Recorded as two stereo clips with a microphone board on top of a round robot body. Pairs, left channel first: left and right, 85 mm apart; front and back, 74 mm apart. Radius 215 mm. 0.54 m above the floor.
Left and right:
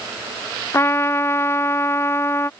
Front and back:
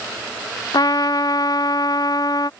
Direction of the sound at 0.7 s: 30° left.